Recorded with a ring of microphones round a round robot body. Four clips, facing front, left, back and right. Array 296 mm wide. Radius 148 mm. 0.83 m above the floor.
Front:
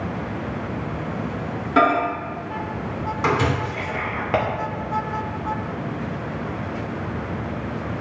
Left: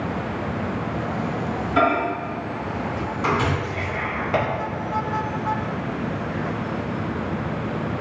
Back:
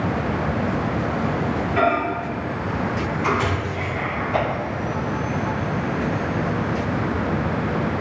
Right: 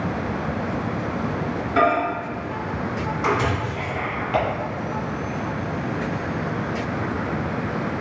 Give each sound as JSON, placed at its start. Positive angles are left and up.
{"t": 1.8, "sound": "a microwave", "azimuth_deg": -5, "distance_m": 2.5}
{"t": 3.6, "sound": "whispering", "azimuth_deg": 15, "distance_m": 3.0}